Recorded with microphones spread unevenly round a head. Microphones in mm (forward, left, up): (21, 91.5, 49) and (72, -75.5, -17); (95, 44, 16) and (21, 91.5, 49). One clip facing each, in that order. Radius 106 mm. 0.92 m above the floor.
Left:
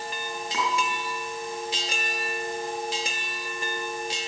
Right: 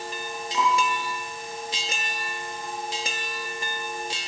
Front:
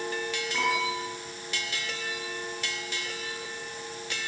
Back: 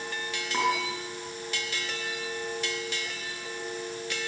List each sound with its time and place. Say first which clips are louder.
0.5 s dishes clattering: right 4 dB, back 1 dB; 160° left, 7.5 m